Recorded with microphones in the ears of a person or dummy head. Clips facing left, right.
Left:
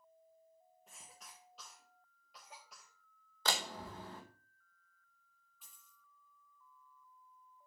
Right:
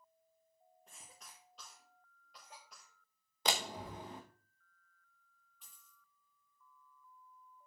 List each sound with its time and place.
0.9 s a cough: 10° left (ahead or behind), 1.7 m
3.5 s a door slam: 15° right (ahead or behind), 0.9 m
5.6 s a dropped coin: centre (ahead or behind), 4.5 m